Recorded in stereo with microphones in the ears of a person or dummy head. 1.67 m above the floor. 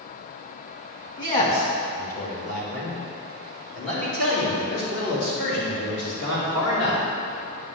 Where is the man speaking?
40° left (ahead or behind), 2 m; by 7.0 s 85° left, 4.5 m.